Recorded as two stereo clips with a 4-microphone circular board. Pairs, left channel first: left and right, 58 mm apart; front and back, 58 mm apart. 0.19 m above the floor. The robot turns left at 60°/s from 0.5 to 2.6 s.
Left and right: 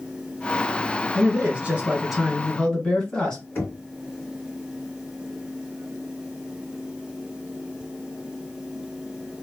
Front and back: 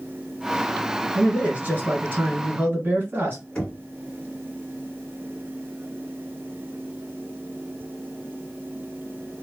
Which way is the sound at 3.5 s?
70° left.